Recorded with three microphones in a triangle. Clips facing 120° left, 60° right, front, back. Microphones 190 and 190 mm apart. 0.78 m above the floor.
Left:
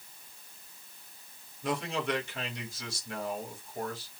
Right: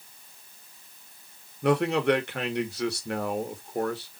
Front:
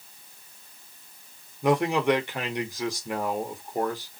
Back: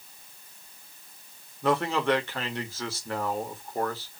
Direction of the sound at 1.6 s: 75° right.